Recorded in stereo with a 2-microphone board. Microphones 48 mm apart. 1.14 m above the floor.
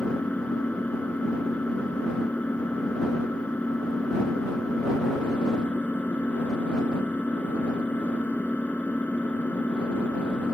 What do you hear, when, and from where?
0.0 s an engine running: 35° left (ahead or behind)